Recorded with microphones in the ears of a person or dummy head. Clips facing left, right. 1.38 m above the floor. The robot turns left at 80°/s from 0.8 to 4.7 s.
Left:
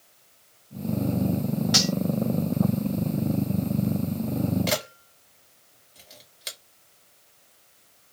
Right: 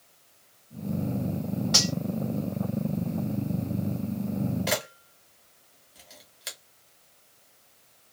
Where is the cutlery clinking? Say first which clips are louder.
Left 4 dB; 15° left (ahead or behind), 1.0 m; by 1.9 s 30° left (ahead or behind), 1.0 m.